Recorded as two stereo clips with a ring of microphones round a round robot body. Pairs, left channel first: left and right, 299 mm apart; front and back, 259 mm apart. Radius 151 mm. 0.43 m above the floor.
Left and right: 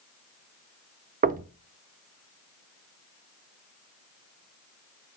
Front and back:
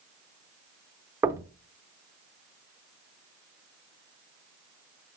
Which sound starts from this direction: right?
Knocking, at 1.2 s.